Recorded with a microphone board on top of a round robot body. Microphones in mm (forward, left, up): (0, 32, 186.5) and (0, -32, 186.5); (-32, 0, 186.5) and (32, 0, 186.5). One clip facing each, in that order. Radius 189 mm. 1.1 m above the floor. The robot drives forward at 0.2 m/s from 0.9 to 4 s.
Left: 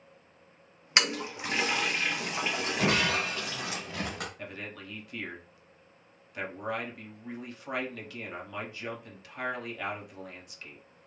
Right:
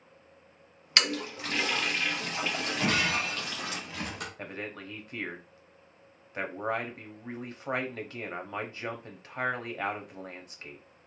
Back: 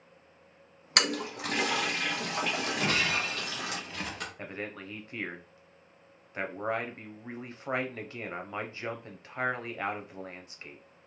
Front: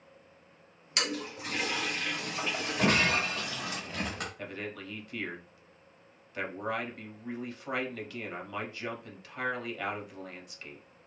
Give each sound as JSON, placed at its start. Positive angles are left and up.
{"t": 1.0, "sound": "a toilet flushing", "azimuth_deg": 160, "distance_m": 0.5}
{"t": 2.8, "sound": "breaking glass", "azimuth_deg": 40, "distance_m": 0.6}
{"t": 4.4, "sound": "a man speaking", "azimuth_deg": -130, "distance_m": 0.9}